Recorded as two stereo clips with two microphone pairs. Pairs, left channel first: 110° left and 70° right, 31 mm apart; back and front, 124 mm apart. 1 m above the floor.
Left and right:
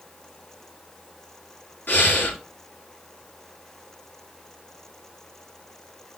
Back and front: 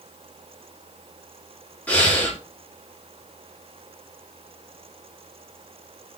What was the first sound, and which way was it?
Breathing, 100° left.